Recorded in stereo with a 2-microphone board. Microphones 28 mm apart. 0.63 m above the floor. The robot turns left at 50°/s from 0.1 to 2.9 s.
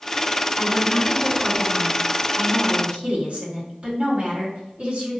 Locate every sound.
0.6 s a woman speaking: 55° left, 2.5 m; by 5.2 s 60° right, 2.5 m